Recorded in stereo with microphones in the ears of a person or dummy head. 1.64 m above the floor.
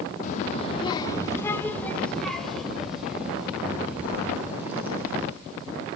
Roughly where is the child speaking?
Left.